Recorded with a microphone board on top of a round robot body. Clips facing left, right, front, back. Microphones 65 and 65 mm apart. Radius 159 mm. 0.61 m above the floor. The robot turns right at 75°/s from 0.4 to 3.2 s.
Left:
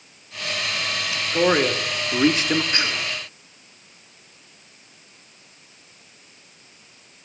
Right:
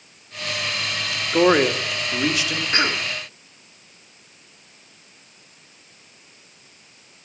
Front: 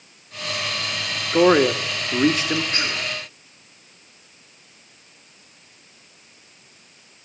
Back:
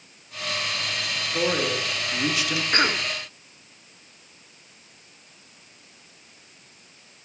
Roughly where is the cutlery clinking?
No cutlery clinking in this recording.